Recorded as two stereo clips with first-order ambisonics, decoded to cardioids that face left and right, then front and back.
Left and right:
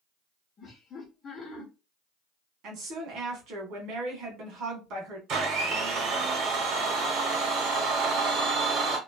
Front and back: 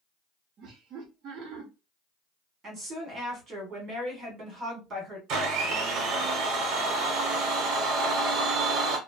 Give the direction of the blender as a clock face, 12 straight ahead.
5 o'clock.